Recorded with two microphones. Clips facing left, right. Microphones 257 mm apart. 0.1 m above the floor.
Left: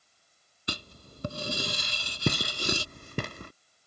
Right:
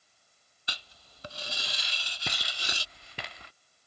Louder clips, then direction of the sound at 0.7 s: Left 12 dB; 50° left (ahead or behind).